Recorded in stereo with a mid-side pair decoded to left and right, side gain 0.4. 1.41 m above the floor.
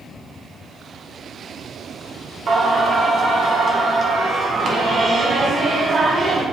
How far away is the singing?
About 1.6 m.